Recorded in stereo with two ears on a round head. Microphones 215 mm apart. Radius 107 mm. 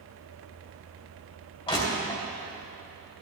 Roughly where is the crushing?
Left.